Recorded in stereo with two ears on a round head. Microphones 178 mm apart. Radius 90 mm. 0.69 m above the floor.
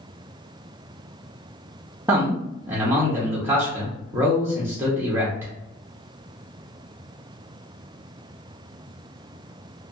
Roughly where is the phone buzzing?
No phone buzzing in this recording.